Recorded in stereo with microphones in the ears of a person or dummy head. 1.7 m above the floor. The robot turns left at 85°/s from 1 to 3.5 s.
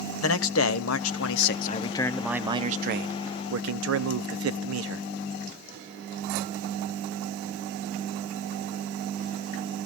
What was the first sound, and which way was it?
A man speaking, 100° left.